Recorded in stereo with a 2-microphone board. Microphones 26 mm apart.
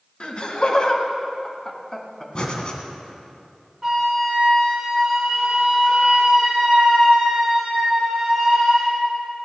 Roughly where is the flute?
Right.